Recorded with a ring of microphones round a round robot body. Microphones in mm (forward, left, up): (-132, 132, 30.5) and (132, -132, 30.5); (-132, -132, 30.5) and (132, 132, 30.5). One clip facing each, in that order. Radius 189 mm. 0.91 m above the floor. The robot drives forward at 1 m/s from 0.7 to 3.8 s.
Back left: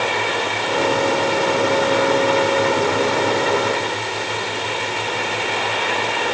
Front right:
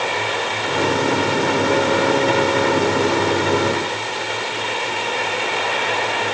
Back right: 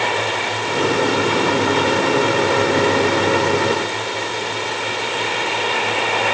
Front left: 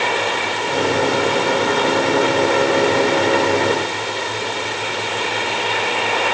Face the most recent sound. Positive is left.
No sound to turn to.